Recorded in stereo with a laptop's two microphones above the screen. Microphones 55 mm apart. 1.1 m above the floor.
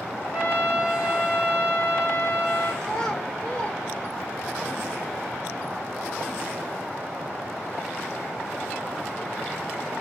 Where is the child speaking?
15° left (ahead or behind), 3 m.